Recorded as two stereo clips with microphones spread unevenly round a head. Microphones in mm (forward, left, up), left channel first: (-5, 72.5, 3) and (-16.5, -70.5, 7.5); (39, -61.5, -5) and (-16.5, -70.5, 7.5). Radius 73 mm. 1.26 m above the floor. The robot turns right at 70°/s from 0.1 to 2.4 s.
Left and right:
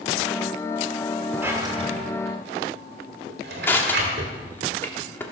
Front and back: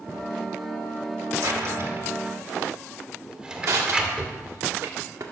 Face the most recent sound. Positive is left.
turn(degrees=160)